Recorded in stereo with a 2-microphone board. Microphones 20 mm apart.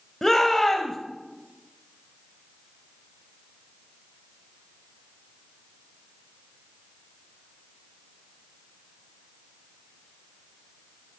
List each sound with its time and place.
0.2 s a shout: 20° left (ahead or behind), 1.3 m